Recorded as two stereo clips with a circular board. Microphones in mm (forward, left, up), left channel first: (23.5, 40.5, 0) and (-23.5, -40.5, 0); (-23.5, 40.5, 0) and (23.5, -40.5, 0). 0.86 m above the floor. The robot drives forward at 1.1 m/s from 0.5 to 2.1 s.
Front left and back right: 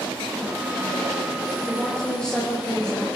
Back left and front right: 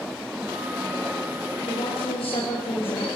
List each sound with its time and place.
1.7 s a woman speaking: 140° left, 4 m